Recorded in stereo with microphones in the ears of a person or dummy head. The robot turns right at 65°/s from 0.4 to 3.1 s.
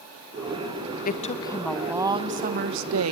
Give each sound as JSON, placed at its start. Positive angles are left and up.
{"t": 1.1, "sound": "a woman speaking", "azimuth_deg": 135, "distance_m": 1.0}